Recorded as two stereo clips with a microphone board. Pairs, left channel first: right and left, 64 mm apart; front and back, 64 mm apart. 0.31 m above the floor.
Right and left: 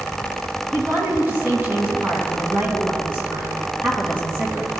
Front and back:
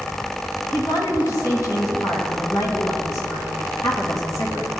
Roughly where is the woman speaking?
Ahead left.